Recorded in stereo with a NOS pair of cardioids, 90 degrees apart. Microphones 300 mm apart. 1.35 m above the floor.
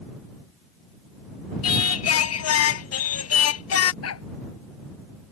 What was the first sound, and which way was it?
Singing, 55° left.